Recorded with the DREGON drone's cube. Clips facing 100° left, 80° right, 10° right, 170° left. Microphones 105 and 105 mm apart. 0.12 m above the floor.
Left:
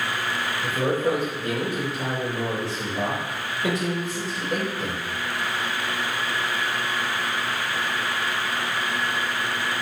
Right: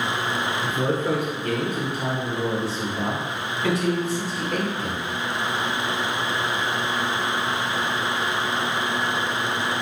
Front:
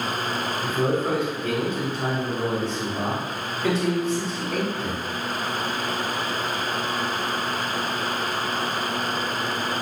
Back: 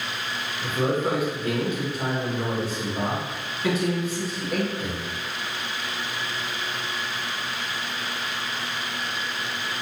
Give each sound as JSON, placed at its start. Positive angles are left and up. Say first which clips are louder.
{"t": 0.6, "sound": "a man speaking", "louder": "left 3 dB, even", "azimuth_deg": 100, "distance_m": 1.4}